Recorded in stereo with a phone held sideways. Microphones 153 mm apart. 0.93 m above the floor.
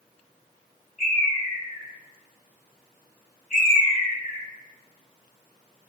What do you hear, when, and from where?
1.0 s a bird: 60° left (ahead or behind), 4.5 m